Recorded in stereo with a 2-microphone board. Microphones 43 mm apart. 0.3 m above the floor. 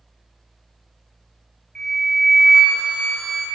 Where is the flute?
10° left (ahead or behind), 0.9 m.